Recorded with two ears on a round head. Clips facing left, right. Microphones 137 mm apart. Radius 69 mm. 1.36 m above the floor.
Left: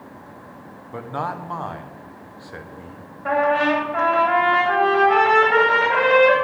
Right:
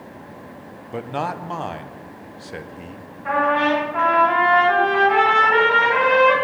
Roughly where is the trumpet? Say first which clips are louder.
Left 1 dB; left.